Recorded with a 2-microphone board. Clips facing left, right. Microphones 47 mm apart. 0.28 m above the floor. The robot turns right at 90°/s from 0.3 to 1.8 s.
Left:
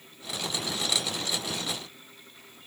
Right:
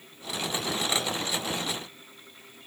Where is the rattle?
No rattle in this recording.